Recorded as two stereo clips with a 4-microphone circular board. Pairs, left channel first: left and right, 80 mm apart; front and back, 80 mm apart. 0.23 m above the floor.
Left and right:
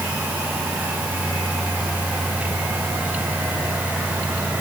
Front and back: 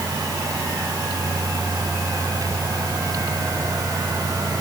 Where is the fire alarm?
I don't hear a fire alarm.